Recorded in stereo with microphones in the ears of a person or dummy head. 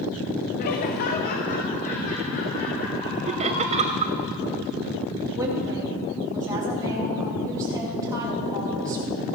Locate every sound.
0.6 s laughter: 45° left (ahead or behind), 0.8 m
3.3 s laughter: 35° right (ahead or behind), 1.0 m
5.3 s a woman speaking: 15° right (ahead or behind), 3 m